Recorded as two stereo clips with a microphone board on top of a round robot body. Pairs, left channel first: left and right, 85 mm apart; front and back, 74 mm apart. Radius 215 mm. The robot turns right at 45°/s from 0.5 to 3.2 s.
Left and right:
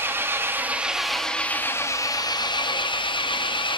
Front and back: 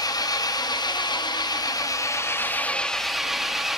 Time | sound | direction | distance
0.0 | an engine running | 25° right | 0.9 m